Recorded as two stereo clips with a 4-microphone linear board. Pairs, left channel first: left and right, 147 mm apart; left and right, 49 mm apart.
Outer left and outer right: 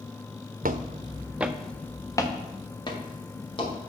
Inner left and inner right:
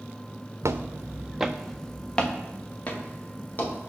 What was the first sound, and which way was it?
Footsteps, 70° right (ahead or behind).